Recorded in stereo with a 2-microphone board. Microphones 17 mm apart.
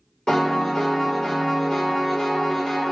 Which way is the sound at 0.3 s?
55° left (ahead or behind).